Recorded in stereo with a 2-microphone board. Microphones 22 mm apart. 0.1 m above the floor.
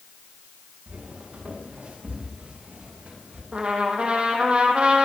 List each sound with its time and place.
0.9 s footsteps: 80° right, 8.5 m; by 3.4 s 85° right, 10.5 m
3.5 s a trumpet: 65° right (ahead or behind), 3.5 m